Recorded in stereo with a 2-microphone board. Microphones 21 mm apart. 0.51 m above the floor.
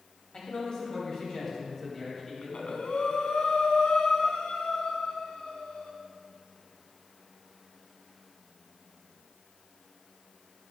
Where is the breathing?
80° left, 1.2 m.